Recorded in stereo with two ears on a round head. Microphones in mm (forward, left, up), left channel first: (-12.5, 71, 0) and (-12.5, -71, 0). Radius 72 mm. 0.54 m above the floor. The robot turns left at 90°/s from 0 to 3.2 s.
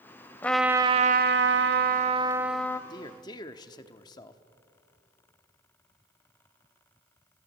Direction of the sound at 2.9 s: 25° left (ahead or behind).